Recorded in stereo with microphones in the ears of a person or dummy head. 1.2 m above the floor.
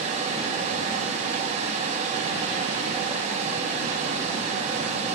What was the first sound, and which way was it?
A fan, 40° right (ahead or behind).